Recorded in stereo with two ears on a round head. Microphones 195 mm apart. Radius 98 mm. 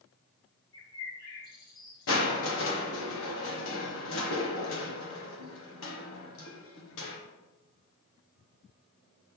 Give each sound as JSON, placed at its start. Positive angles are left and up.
{"t": 0.7, "sound": "a bird", "side_deg": 40, "distance_m": 4.0}
{"t": 2.1, "sound": "crushing", "side_deg": 60, "distance_m": 1.5}